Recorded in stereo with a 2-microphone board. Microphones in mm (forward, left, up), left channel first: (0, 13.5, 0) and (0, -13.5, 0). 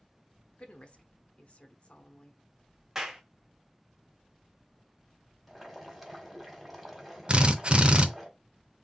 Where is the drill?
40° right (ahead or behind), 0.6 m.